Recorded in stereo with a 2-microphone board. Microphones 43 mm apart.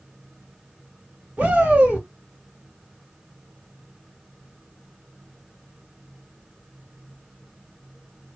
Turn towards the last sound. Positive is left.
turn(degrees=-40)  # may be behind; listen again after turning